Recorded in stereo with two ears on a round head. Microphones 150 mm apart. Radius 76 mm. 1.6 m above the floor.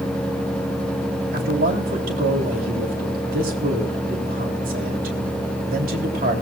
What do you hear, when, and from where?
1.3 s a man speaking: 55° right (ahead or behind), 3.5 m